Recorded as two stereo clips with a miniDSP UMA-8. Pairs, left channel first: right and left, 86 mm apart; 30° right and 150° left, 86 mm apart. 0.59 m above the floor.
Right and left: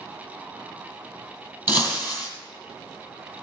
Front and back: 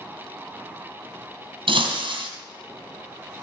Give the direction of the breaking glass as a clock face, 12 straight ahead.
7 o'clock.